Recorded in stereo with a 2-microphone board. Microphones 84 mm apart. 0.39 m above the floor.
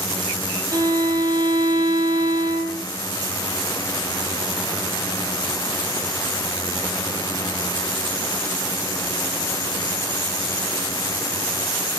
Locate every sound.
0.7 s a violin: 50° right (ahead or behind), 3 m